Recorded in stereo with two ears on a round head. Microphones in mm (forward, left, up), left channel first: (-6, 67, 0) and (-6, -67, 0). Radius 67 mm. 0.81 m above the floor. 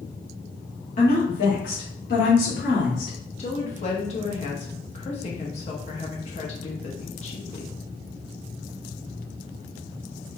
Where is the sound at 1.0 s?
55° left (ahead or behind), 1.3 m; by 3.2 s 70° left (ahead or behind), 1.9 m.